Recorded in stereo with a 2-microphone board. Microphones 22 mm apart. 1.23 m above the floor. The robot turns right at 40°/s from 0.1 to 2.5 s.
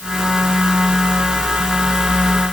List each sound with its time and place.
Only background noise.